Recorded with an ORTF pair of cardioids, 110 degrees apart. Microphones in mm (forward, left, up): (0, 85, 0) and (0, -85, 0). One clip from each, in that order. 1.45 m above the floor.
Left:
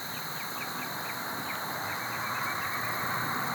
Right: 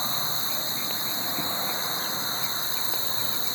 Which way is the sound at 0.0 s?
65° right.